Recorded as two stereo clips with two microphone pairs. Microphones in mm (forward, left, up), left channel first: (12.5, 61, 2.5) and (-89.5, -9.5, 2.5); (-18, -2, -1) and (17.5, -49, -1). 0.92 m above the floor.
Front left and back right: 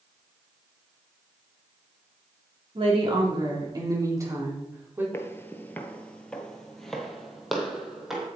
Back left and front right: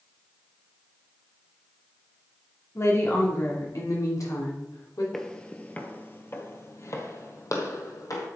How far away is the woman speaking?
About 2.5 m.